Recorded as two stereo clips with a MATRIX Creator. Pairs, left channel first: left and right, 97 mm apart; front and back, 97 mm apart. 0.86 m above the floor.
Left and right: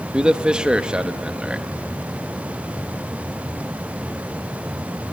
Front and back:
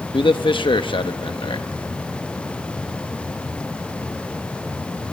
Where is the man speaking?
10° right, 0.9 m.